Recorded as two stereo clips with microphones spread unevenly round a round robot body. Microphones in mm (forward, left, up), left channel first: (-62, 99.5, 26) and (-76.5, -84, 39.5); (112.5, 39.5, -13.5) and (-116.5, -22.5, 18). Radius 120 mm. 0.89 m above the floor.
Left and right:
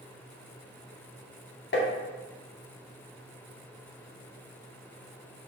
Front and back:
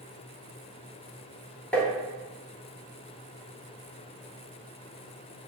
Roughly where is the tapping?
Left.